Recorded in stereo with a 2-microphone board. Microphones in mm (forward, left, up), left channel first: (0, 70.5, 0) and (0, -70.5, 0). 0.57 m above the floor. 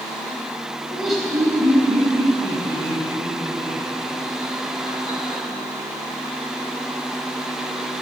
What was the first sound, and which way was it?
Laughter, 5° right (ahead or behind).